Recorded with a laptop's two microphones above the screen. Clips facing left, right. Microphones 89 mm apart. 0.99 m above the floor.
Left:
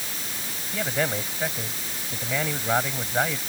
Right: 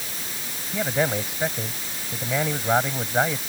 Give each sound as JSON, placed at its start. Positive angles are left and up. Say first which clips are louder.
{"t": 0.7, "sound": "a man speaking", "louder": "right 3 dB", "side_deg": -15}